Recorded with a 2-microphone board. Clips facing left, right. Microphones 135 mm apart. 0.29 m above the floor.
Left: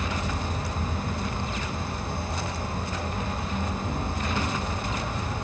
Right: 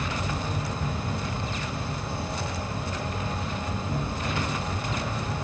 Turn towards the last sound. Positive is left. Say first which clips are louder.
# even
turn(degrees=55)  # may be behind; listen again after turning